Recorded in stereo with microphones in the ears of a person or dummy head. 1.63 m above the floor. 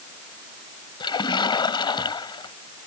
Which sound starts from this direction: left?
A splash, at 1.0 s.